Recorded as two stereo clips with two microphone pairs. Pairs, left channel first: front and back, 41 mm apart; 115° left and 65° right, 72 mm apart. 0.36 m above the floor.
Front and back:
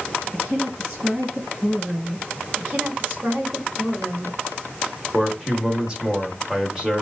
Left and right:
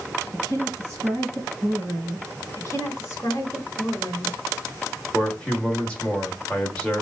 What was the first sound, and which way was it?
A woman speaking, 125° right.